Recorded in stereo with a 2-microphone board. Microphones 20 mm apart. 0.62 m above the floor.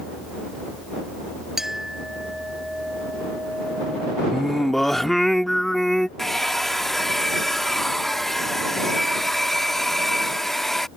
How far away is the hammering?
No hammering in this recording.